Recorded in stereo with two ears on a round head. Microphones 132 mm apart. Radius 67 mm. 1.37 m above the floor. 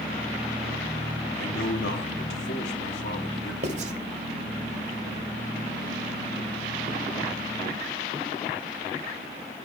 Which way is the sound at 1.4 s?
85° left.